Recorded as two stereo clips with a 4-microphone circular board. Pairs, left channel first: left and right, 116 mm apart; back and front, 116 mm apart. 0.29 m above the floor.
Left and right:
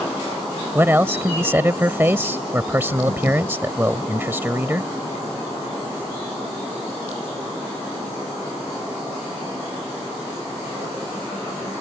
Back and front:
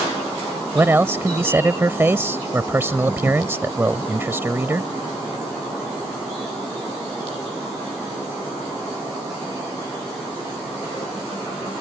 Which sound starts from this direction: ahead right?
A man speaking, at 0.8 s.